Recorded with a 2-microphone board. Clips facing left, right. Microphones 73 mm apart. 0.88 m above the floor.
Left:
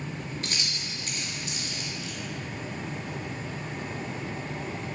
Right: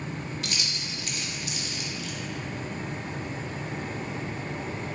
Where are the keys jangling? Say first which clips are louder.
Right 1 dB; 35° left (ahead or behind), 0.6 m.